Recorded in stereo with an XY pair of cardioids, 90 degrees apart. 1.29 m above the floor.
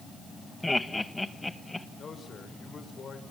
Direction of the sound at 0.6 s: 10° left.